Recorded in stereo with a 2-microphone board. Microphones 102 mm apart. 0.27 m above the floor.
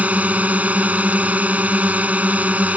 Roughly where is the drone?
Centre.